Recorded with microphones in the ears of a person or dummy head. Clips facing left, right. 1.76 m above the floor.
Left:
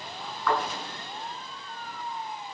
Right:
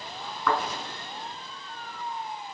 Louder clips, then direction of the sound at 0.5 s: Even; 60° right (ahead or behind).